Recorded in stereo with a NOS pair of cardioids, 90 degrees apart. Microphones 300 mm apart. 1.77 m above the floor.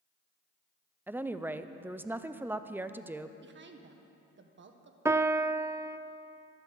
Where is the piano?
10° right, 0.5 m.